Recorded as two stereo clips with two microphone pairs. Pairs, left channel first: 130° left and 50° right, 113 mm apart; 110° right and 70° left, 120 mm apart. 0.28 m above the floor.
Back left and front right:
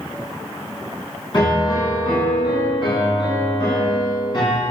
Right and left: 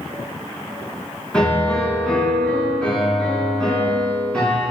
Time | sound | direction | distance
1.3 | a piano | 170° left | 2.5 m